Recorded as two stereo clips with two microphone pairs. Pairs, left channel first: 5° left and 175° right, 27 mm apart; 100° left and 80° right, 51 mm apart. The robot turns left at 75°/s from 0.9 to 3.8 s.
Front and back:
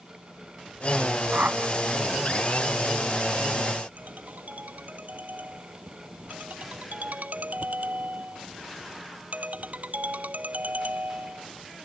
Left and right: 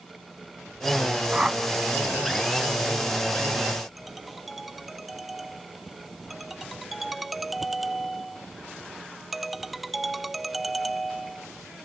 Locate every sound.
1.3 s a whoosh: 145° right; by 1.7 s 175° right
4.0 s a ringtone: 165° right